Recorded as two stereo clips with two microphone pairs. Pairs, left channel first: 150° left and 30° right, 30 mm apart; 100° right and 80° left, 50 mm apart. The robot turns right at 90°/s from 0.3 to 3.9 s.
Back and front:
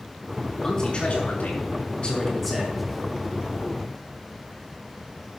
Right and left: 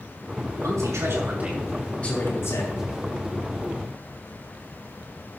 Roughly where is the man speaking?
Left.